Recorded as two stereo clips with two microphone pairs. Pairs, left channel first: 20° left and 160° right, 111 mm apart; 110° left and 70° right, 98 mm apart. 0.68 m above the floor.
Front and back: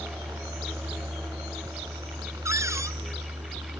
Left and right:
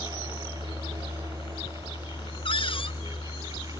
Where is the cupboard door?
140° left.